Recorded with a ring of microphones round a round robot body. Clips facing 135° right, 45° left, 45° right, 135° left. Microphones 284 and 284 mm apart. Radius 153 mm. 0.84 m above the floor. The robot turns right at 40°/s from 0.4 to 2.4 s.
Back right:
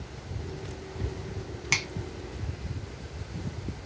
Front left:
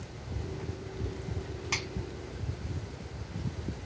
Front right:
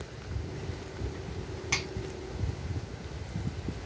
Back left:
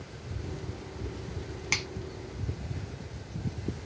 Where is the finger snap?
175° left, 1.0 m; by 1.9 s 175° right, 1.0 m.